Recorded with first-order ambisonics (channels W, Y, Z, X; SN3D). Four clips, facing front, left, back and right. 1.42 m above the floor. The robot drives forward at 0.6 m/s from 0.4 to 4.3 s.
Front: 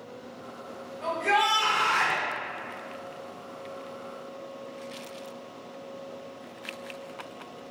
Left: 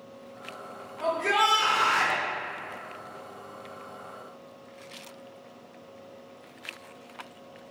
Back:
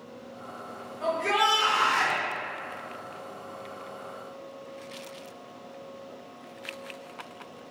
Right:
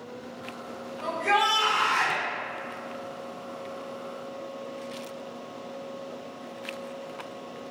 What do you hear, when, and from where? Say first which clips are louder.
1.0 s a shout: even, even; 110° left, 1.6 m; by 2.2 s 130° left, 2 m